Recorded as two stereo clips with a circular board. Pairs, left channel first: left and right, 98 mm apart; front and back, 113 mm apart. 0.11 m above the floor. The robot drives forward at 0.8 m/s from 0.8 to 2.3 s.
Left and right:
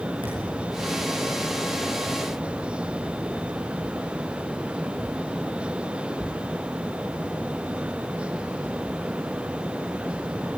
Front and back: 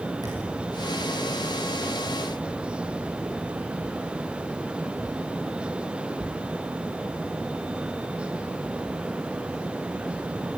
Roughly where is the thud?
Behind right.